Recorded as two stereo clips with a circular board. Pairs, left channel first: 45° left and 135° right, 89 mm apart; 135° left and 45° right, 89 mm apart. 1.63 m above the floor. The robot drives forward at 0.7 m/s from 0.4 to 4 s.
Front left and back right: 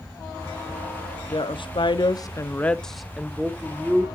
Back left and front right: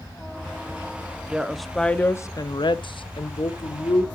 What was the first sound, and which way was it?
A woman speaking, 35° left.